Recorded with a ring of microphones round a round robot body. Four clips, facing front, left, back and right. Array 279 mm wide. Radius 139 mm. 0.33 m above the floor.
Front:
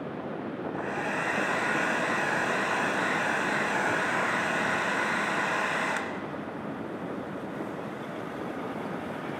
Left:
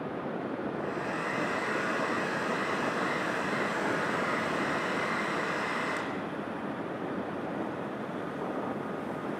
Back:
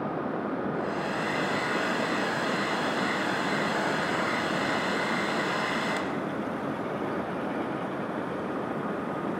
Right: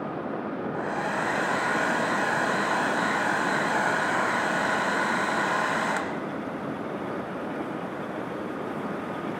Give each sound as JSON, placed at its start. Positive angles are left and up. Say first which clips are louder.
{"t": 0.7, "sound": "a hair dryer", "louder": "right 5 dB, back 1 dB", "azimuth_deg": -80, "distance_m": 1.1}